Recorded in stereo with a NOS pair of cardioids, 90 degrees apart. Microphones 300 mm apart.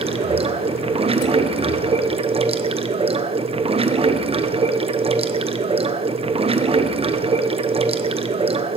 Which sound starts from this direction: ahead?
Running water, at 0.0 s.